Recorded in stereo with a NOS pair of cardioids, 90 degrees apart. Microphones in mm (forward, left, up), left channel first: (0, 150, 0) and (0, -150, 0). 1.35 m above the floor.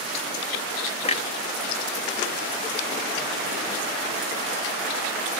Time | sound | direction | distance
1.0 | a clunk | 20° left | 0.7 m